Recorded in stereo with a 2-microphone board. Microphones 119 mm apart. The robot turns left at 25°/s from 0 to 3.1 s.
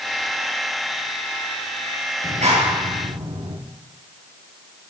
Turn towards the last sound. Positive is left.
turn(degrees=-85)